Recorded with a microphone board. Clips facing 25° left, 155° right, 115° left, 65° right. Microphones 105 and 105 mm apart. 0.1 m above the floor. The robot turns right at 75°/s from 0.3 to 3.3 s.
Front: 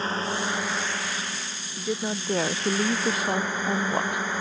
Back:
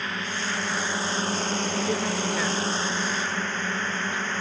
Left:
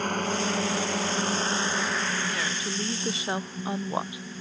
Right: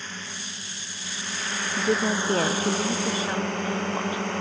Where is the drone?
80° left; by 4.4 s 55° right.